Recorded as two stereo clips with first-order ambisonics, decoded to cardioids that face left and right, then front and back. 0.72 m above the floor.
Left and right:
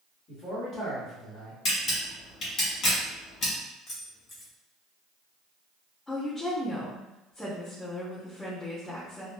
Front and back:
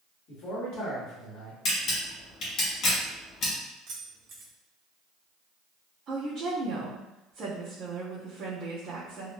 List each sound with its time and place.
0.3 s a man speaking: 30° left, 1.5 m
1.6 s a camera shutter: 40° left, 1.3 m
3.9 s keys jangling: 145° left, 1.1 m
6.1 s a woman speaking: 155° left, 1.1 m